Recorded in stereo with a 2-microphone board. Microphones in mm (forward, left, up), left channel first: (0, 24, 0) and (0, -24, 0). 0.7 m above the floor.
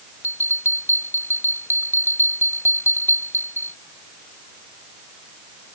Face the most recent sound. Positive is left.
turn(degrees=50)  # may be behind; listen again after turning